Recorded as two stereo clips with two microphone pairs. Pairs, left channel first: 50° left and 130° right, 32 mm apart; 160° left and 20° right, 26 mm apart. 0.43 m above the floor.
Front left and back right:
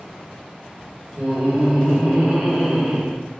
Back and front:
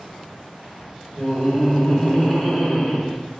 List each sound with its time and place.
1.2 s laughter: 145° right, 2 m; by 3.2 s 165° right, 1.4 m